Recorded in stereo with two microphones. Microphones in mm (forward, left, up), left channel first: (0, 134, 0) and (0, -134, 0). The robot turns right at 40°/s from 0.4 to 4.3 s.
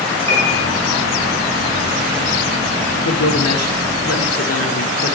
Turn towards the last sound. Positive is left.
turn(degrees=120)